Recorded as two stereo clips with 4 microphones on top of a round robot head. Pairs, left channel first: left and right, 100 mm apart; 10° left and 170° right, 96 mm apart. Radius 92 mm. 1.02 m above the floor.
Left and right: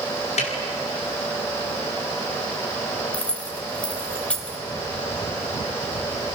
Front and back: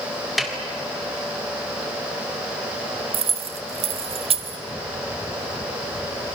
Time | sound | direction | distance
0.4 | a snare drum | 100° left | 4 m
3.1 | keys jangling | 170° left | 1.3 m